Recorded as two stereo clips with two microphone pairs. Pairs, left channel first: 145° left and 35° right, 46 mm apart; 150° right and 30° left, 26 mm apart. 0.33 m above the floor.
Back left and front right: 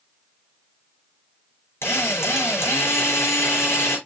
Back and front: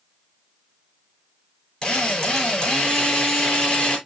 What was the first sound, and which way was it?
A drill, 160° left.